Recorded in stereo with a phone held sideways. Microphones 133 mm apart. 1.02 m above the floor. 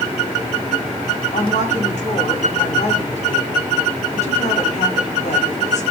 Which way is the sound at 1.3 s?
60° left (ahead or behind).